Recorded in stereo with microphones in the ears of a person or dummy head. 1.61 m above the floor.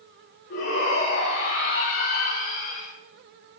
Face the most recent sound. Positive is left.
turn(degrees=40)  # may be behind; listen again after turning